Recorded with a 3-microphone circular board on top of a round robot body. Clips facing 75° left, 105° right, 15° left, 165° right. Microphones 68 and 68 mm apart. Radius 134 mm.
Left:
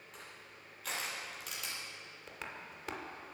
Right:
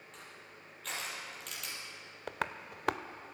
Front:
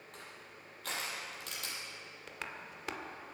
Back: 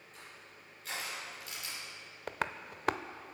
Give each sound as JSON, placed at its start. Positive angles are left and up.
{"t": 0.1, "sound": "crushing", "azimuth_deg": -10, "distance_m": 5.5}
{"t": 2.3, "sound": "tapping", "azimuth_deg": -130, "distance_m": 0.7}